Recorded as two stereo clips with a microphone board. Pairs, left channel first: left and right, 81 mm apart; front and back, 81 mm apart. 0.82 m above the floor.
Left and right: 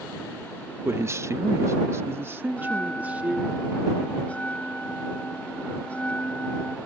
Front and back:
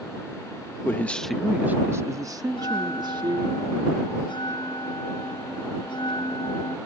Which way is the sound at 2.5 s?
15° left.